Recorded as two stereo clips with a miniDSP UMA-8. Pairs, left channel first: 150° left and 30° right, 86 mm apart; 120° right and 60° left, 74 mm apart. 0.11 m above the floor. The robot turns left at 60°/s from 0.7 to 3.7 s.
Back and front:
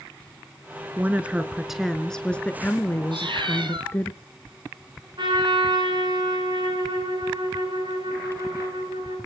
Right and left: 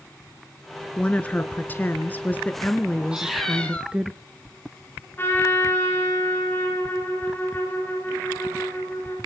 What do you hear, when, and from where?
1.0 s a woman speaking: 70° right, 1.1 m; by 4.1 s 130° left, 1.1 m
3.1 s a cat meowing: 15° right, 2 m; by 3.9 s 50° right, 2 m
5.2 s a trumpet: 60° right, 9 m